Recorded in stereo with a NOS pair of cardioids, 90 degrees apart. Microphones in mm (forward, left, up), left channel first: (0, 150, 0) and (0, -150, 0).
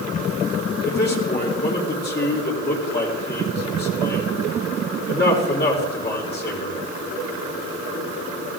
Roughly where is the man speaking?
Ahead left.